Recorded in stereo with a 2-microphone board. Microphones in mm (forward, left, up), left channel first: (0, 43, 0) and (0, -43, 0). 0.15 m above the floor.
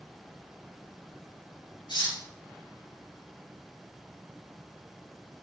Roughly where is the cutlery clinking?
Left.